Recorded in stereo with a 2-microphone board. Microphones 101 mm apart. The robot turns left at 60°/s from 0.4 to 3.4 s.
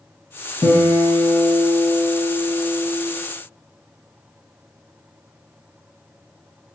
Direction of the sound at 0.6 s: 95° left.